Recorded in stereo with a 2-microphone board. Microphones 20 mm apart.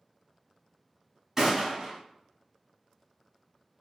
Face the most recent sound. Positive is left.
turn(degrees=-25)  # may be behind; listen again after turning